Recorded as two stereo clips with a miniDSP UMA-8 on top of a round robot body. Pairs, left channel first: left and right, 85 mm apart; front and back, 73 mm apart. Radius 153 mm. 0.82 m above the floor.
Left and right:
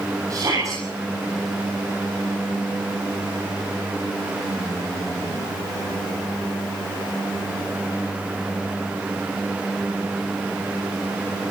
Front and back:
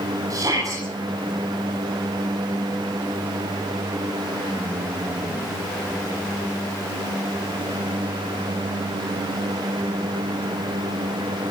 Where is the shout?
140° right, 8 m.